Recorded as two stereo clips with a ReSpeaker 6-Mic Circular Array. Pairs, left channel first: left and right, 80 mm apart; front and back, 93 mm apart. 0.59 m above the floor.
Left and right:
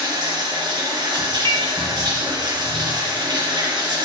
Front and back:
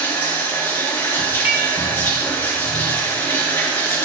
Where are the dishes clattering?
105° right, 1.5 m.